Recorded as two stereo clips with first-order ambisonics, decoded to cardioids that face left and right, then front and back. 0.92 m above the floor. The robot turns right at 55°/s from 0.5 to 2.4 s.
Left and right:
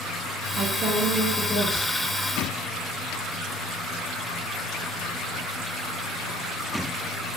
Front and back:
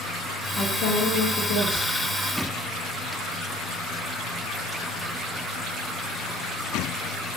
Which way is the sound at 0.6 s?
50° right.